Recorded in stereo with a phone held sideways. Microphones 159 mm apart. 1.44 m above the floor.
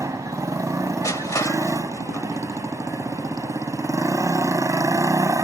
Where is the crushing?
20° left (ahead or behind).